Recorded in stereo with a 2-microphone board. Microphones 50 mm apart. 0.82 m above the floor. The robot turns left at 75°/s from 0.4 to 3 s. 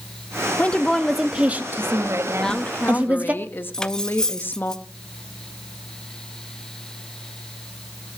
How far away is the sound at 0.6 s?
About 1.3 m.